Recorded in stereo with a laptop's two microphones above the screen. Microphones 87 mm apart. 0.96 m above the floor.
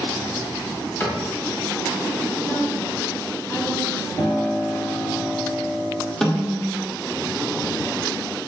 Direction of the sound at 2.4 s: 30° left (ahead or behind).